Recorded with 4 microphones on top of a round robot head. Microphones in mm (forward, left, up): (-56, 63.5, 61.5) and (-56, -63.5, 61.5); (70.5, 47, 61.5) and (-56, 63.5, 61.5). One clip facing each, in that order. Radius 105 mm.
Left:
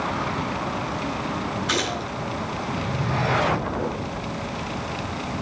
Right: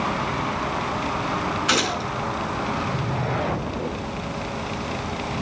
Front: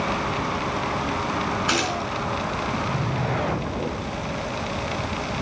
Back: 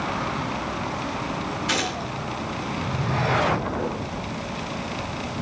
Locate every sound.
1.7 s a gunshot: 55° right, 4 m